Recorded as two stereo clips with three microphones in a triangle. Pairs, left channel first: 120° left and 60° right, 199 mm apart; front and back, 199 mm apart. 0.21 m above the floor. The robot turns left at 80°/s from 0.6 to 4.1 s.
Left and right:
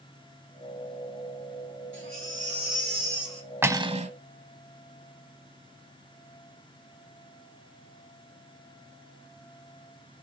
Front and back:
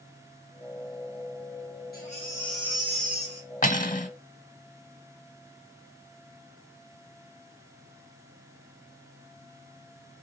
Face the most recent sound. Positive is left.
turn(degrees=-25)